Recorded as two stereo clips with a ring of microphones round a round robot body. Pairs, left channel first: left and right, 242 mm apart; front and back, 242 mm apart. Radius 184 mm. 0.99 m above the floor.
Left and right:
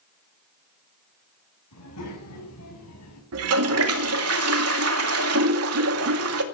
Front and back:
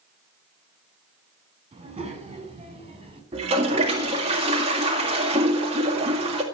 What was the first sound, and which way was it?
A child speaking, 115° left.